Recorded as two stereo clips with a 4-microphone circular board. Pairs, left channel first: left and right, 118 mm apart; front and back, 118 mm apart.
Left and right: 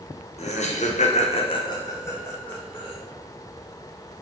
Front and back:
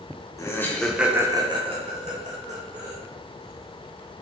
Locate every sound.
0.4 s laughter: 65° left, 0.7 m; by 3.0 s 170° left, 1.3 m